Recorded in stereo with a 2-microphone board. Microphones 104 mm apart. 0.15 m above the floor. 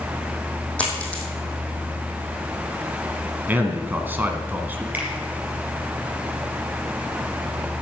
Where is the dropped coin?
10° left (ahead or behind), 2.5 m.